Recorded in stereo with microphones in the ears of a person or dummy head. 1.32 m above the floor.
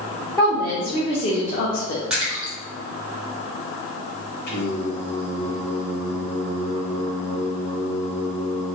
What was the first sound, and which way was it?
A woman speaking, centre (ahead or behind).